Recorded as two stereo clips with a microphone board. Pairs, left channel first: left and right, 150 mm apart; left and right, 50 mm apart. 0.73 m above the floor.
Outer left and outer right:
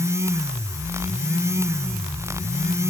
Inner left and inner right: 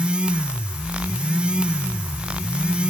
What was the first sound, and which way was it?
Only background noise.